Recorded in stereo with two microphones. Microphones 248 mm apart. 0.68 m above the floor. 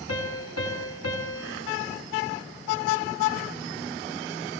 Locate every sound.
0.1 s a piano: 70° left (ahead or behind), 6 m